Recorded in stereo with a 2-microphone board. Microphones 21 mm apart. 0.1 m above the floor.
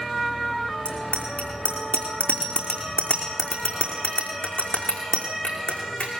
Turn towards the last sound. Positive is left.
turn(degrees=60)  # may be behind; listen again after turning